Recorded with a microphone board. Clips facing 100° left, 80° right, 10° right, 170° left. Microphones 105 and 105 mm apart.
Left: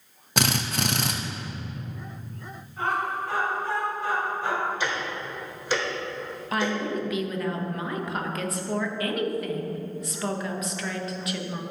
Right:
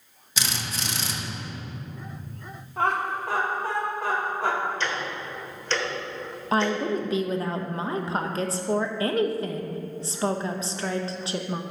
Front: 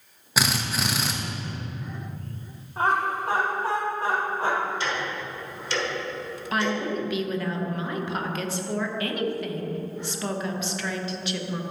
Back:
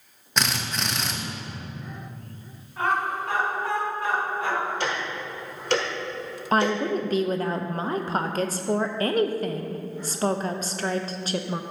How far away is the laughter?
About 2.5 m.